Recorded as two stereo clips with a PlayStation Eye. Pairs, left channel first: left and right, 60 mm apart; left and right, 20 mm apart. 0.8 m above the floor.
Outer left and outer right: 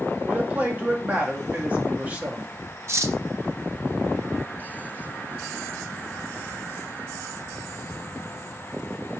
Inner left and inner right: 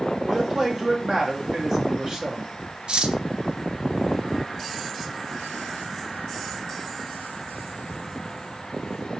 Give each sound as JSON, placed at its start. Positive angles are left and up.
{"t": 0.2, "sound": "a man speaking", "side_deg": -25, "distance_m": 1.6}
{"t": 2.9, "sound": "cutlery clinking", "side_deg": -55, "distance_m": 0.6}